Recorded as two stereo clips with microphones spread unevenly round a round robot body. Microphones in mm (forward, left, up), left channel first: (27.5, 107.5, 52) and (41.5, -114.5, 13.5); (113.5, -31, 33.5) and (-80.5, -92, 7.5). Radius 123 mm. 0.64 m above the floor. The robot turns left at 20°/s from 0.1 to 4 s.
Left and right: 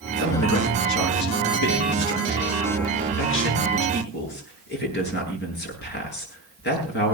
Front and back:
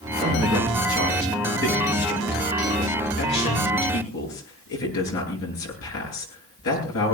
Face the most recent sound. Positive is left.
turn(degrees=50)